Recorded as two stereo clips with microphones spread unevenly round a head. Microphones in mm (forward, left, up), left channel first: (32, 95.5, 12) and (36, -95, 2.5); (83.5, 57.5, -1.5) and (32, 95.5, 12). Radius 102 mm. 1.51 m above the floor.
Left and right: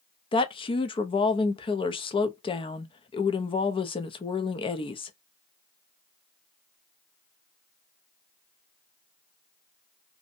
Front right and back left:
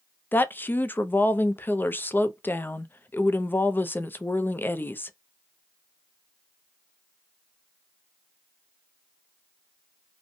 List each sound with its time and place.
0.3 s a woman speaking: 25° left, 0.5 m